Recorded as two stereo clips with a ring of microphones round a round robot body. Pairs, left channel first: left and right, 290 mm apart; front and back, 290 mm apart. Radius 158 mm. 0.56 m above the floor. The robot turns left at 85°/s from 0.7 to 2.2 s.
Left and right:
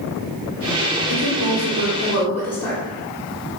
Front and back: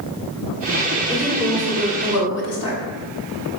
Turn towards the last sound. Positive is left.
turn(degrees=10)